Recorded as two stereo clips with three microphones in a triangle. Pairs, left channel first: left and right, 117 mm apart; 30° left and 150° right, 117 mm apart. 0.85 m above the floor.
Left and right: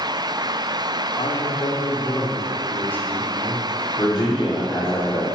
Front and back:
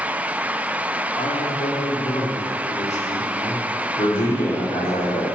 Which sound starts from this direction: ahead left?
A man speaking, at 1.2 s.